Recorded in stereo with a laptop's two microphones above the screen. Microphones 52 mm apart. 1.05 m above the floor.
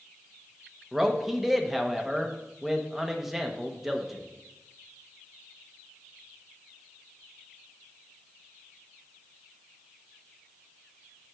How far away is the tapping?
No tapping in this recording.